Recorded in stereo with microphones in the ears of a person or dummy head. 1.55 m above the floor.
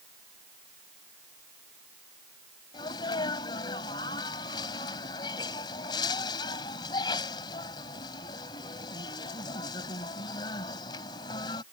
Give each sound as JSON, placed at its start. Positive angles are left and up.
{"t": 2.7, "sound": "a sneeze", "side_deg": 25}